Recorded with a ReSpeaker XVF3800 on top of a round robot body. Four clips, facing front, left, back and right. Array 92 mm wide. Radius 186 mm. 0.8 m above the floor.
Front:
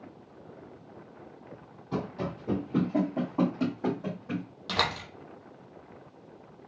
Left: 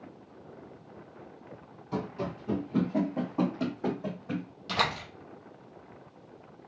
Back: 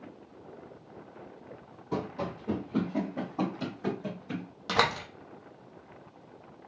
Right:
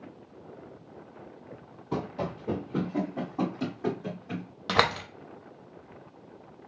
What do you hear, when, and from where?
1.9 s running footsteps: 105° right, 1.1 m; by 4.5 s 50° left, 2.0 m
4.7 s a door slam: 110° right, 0.7 m